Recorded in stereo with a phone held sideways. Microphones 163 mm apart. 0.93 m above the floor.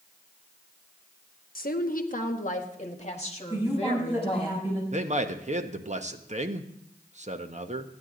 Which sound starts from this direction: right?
A man speaking, at 4.9 s.